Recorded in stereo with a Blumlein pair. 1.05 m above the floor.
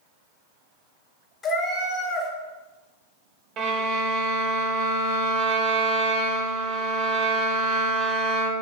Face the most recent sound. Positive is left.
turn(degrees=-35)